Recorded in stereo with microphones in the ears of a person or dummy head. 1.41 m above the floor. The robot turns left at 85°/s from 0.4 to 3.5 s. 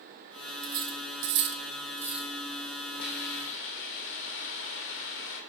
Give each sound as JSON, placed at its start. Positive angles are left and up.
{"t": 0.6, "sound": "cutlery clinking", "side_deg": -30, "distance_m": 1.0}
{"t": 3.0, "sound": "a hiss", "azimuth_deg": 125, "distance_m": 2.0}